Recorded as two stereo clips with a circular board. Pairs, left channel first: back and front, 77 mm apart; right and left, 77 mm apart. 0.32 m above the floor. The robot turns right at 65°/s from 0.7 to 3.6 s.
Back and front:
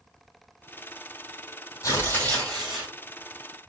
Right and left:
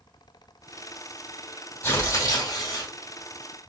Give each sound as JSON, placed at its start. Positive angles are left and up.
{"t": 1.8, "sound": "tearing paper", "azimuth_deg": -140, "distance_m": 2.5}